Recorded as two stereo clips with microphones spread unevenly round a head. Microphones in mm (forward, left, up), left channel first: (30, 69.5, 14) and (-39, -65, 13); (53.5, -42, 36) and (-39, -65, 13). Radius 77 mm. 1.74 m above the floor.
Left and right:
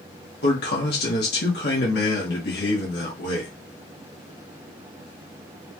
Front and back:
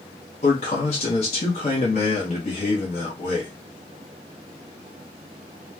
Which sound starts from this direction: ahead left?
A man speaking, at 0.4 s.